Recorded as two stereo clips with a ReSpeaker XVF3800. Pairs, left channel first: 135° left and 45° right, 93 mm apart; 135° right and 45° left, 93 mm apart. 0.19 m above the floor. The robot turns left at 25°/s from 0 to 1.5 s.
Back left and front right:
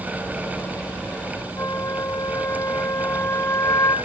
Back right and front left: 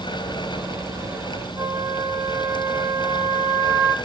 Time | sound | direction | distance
1.6 | a flute | 90° left | 1.4 m